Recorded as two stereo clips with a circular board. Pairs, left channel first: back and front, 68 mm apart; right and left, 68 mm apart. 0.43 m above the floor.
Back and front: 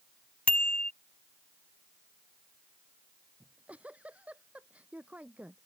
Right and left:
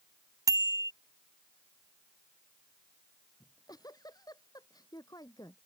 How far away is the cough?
I don't hear a cough.